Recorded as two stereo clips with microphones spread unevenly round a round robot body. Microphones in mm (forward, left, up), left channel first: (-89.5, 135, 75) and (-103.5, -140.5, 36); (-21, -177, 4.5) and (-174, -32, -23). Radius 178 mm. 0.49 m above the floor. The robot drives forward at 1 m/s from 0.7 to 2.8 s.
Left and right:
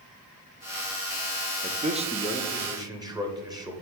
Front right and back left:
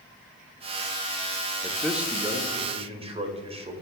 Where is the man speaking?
120° right, 0.7 m; by 3.7 s 165° right, 1.5 m.